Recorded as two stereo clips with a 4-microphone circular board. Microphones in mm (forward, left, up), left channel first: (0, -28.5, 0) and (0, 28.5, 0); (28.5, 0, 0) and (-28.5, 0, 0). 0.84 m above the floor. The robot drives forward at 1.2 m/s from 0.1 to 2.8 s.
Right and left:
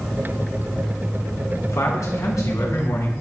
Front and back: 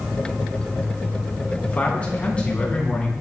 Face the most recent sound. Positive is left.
turn(degrees=-75)